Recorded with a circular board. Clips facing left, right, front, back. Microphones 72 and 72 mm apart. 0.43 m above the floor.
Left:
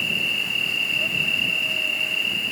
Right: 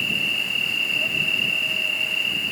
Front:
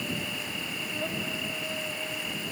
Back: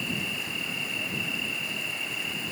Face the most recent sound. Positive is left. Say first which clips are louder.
# even, back 1 dB
turn(degrees=0)